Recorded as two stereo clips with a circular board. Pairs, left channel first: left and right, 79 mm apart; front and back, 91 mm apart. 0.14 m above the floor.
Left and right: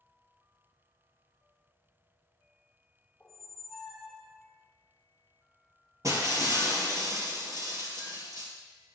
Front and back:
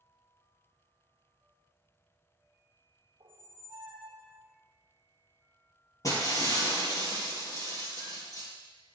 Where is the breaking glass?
45° right, 2 m.